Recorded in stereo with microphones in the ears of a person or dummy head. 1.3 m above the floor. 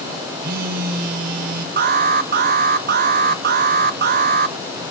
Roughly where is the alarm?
Right.